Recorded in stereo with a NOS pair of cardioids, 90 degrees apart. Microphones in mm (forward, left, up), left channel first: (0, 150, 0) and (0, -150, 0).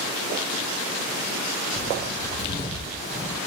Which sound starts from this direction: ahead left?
Footsteps, at 1.7 s.